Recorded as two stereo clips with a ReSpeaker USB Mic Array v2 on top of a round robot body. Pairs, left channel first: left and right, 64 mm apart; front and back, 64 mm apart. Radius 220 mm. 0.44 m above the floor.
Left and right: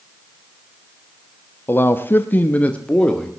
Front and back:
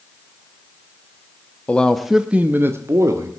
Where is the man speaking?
60° left, 1.2 m; by 3.3 s 165° left, 1.7 m.